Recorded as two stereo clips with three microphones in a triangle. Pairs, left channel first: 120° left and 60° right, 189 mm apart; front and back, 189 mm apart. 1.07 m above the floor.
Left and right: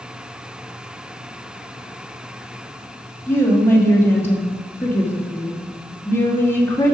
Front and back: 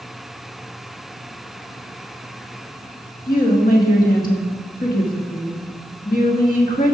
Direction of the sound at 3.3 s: 45° left.